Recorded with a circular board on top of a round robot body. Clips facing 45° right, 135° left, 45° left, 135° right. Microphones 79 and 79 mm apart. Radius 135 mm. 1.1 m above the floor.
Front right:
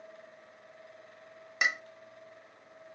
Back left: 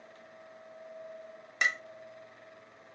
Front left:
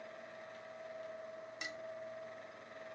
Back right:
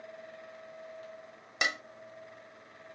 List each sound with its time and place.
1.6 s dishes clattering: 125° right